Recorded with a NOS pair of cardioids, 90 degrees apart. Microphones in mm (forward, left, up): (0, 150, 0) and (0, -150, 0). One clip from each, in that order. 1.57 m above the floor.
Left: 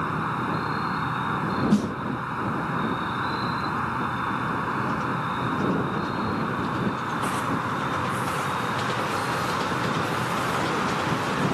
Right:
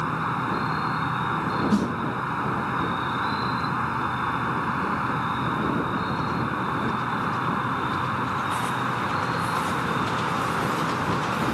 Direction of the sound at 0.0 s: 25° right.